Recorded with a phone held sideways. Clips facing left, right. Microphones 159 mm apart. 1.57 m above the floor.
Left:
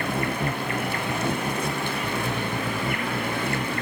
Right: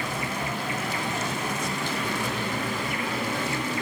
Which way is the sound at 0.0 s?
55° left (ahead or behind).